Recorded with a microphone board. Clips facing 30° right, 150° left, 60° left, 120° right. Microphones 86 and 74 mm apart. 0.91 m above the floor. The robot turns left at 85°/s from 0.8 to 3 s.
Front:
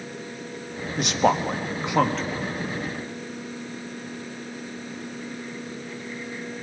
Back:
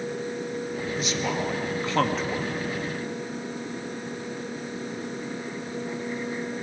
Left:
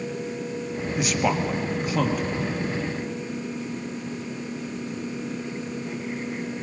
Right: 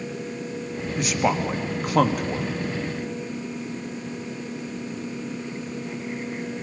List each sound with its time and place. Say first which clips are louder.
1.0 s a man speaking: front 9 dB, right 1 dB; 20° right, 1.4 m; by 2.5 s 150° right, 1.4 m